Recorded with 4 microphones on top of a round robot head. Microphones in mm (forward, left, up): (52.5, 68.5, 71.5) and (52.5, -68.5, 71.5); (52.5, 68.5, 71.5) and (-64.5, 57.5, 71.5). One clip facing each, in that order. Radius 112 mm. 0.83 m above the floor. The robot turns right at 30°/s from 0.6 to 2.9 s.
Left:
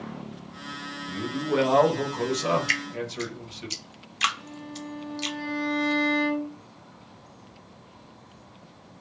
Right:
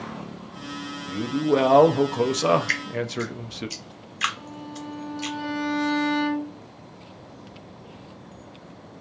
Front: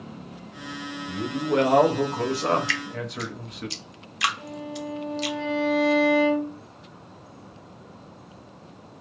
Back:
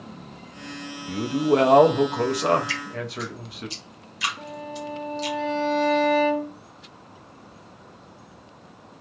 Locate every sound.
1.1 s a man speaking: 140° right, 0.6 m; by 3.7 s 85° right, 0.6 m
2.7 s dripping: 25° left, 0.6 m; by 5.4 s 30° left, 0.6 m
4.4 s a violin: 115° right, 1.6 m